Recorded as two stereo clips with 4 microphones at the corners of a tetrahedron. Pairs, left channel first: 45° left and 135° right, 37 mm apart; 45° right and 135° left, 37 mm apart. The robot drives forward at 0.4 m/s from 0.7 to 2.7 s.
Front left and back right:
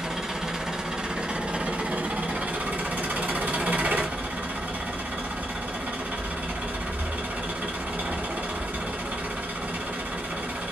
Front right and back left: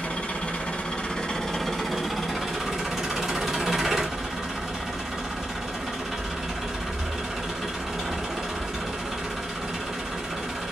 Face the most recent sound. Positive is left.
turn(degrees=-145)